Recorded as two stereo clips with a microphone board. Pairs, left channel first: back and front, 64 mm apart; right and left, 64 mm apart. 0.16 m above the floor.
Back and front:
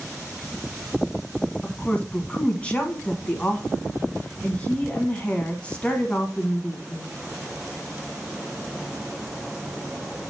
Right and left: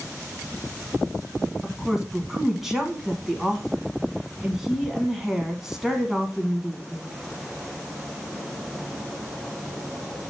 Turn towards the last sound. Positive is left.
turn(degrees=165)